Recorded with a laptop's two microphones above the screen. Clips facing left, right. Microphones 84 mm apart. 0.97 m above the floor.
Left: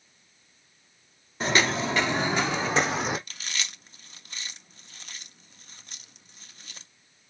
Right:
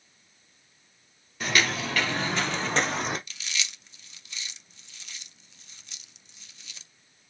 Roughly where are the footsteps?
Left.